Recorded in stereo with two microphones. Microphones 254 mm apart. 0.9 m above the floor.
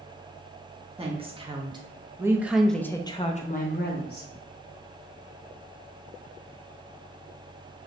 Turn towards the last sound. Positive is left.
turn(degrees=40)  # may be behind; listen again after turning